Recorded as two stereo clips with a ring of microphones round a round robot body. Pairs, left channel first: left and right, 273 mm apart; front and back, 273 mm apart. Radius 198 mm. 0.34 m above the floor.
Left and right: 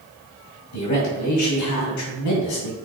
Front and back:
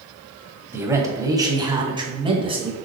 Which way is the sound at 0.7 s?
100° left.